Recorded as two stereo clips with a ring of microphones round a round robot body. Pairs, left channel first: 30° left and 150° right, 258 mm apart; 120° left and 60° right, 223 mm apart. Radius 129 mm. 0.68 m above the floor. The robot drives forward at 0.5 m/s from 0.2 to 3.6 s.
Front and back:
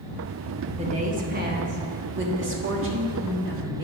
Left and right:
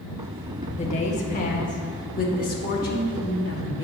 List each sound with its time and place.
0.8 s a woman speaking: 160° left, 0.9 m; by 3.8 s 175° left, 2 m